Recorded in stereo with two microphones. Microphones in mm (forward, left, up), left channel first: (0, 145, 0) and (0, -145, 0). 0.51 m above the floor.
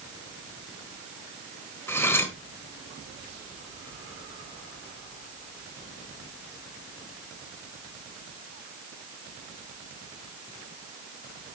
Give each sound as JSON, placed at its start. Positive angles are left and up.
{"t": 1.9, "sound": "cutlery clinking", "side_deg": 10, "distance_m": 1.1}